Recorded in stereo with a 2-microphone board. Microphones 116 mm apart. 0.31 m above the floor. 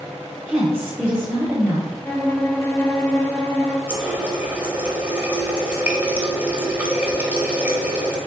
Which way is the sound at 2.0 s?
20° left (ahead or behind).